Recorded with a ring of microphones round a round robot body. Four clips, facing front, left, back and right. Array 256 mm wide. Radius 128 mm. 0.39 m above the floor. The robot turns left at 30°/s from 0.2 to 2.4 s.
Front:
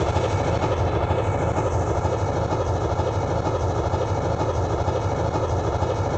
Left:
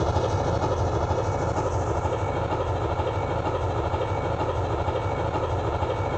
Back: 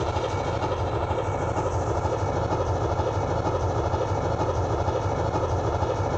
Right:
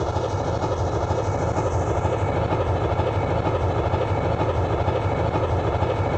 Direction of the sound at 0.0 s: Straight ahead.